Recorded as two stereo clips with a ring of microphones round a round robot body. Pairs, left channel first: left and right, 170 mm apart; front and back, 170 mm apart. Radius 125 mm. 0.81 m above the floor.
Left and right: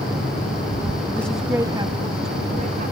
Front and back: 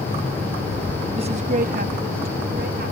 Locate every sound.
1.2 s a woman speaking: 165° left; by 2.9 s 140° right